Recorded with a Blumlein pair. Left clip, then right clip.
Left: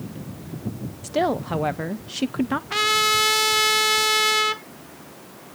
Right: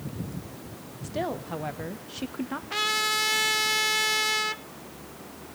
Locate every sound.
1.0 s a woman speaking: 65° left, 0.7 m
2.7 s a trumpet: 15° left, 0.7 m